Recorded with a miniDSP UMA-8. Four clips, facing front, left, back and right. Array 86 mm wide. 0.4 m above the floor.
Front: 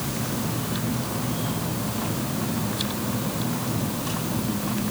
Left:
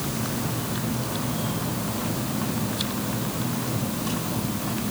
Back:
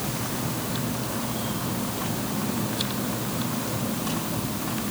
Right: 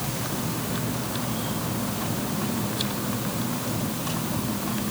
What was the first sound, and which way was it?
Only background noise.